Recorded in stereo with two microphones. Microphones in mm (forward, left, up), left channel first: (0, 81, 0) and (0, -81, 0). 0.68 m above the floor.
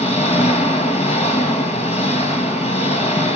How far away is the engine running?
About 4 m.